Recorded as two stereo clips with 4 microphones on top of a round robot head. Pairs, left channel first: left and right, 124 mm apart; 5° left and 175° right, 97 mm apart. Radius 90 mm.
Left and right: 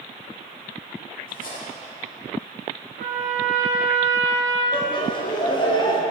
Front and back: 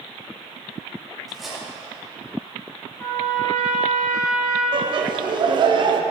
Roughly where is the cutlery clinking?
Left.